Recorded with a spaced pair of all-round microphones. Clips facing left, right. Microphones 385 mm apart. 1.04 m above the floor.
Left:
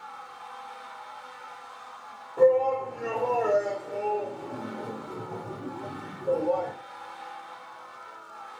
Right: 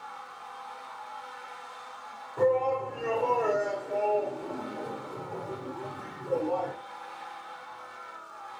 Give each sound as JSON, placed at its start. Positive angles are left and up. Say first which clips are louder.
{"t": 2.4, "sound": "a shout", "louder": "left 5 dB", "side_deg": -15, "distance_m": 2.0}